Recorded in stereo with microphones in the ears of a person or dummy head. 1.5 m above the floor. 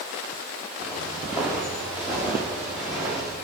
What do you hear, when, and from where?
0.8 s footsteps: 5° right (ahead or behind), 7 m; by 3.4 s 10° right (ahead or behind), 8 m